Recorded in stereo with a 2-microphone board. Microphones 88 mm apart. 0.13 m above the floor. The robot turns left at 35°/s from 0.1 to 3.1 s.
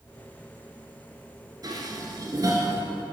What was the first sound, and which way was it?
Dishes clattering, 45° right (ahead or behind).